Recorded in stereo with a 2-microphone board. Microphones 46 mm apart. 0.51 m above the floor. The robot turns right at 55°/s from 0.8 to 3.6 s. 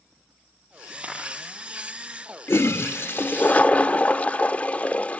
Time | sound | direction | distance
1.0 | a camera shutter | 30° right (ahead or behind) | 9.5 m
2.5 | a toilet flushing | 80° left | 0.5 m